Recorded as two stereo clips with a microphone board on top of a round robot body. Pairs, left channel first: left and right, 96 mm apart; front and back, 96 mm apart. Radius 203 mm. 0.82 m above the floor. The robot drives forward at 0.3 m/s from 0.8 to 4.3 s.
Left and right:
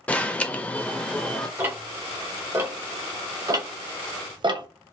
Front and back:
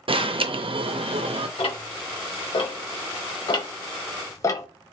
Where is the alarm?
165° left, 0.6 m; by 1.5 s 170° left, 0.7 m.